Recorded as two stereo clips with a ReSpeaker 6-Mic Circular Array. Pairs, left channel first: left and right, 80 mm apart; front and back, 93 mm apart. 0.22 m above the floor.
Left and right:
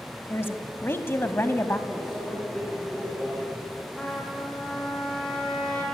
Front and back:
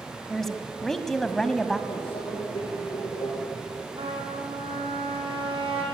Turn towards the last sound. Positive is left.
turn(degrees=170)